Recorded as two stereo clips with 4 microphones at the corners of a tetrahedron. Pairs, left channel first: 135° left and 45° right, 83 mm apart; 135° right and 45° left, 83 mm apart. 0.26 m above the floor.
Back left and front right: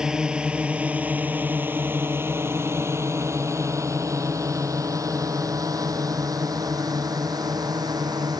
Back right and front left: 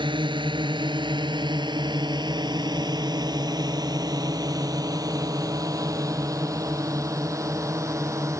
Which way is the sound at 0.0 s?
40° left.